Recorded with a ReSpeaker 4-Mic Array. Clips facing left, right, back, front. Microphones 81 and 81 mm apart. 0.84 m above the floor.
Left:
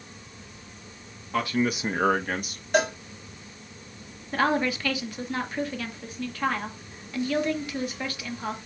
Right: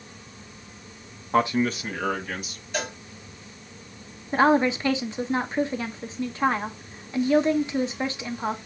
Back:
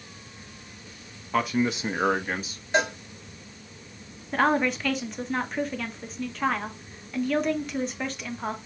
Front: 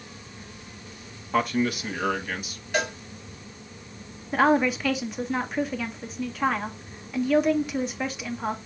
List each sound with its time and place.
1.3 s a man speaking: 80° right, 0.6 m; by 2.6 s 125° left, 1.7 m
2.7 s a cowbell: 120° left, 1.4 m
4.3 s a woman speaking: 80° right, 0.7 m